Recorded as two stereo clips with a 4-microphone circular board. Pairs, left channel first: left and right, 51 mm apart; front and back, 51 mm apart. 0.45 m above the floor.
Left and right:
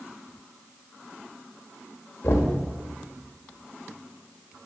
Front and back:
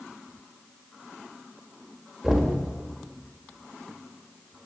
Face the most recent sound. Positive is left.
turn(degrees=100)